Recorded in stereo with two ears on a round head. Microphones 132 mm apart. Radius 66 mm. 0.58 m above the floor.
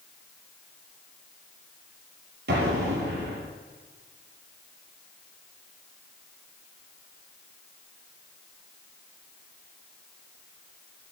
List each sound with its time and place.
2.5 s an explosion: 80° right, 4.5 m